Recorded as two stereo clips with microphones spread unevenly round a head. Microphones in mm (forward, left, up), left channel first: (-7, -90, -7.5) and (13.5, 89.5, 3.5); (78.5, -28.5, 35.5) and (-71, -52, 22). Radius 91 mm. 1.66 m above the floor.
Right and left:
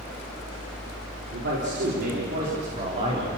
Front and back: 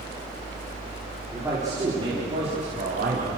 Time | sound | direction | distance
1.3 | a man speaking | 110° left | 4.5 m